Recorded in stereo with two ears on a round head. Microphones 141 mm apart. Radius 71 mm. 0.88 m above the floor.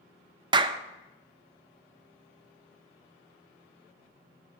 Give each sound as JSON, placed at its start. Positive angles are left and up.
{"t": 0.5, "sound": "a clap", "side_deg": -30, "distance_m": 0.5}